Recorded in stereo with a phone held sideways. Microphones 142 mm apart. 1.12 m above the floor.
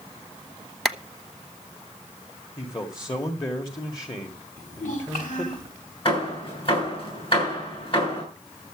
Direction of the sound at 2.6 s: 30° left (ahead or behind).